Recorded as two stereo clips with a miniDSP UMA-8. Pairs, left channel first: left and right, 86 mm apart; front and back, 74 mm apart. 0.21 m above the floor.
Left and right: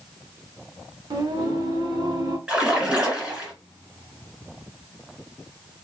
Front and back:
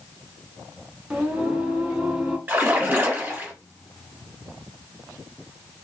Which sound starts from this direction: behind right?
A splash, at 2.5 s.